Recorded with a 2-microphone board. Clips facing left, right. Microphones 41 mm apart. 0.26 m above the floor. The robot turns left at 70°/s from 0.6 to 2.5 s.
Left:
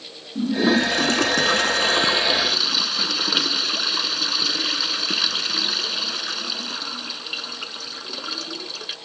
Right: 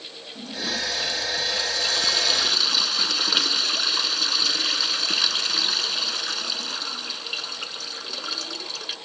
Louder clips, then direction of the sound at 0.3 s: Left 11 dB; 140° left.